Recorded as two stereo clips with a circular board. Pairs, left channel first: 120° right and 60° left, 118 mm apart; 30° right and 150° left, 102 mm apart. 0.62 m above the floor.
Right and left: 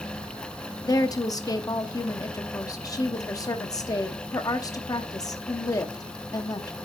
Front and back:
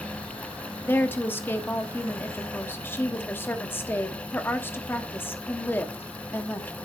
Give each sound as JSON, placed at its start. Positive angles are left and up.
{"t": 0.8, "sound": "a woman speaking", "azimuth_deg": -85, "distance_m": 0.8}